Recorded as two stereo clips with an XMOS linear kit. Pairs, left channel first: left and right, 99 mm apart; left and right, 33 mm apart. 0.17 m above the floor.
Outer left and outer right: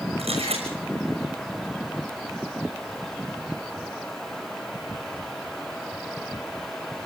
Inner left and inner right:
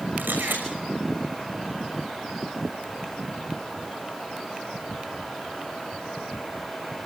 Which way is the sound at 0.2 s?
85° right.